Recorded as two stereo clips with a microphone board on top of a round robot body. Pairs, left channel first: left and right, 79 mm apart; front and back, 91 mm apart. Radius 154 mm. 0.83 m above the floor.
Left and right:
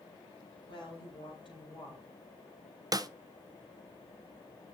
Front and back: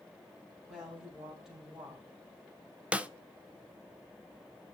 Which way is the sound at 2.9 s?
105° right.